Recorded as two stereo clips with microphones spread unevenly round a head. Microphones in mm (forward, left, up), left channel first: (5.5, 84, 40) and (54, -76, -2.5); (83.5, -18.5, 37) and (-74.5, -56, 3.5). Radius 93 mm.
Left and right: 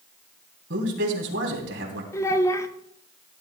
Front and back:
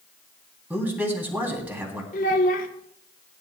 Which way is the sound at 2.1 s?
40° left.